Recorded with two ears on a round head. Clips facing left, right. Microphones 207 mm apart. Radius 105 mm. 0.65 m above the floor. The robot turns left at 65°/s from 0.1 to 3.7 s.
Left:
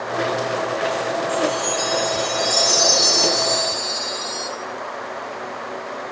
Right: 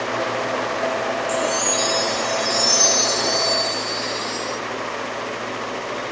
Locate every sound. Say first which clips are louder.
1.3 s a chime: left 1 dB; 120° right, 3 m; by 4.5 s 85° left, 3 m